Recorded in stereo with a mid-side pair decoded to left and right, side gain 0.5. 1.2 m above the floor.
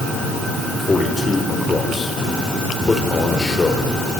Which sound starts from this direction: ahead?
A man speaking, at 0.8 s.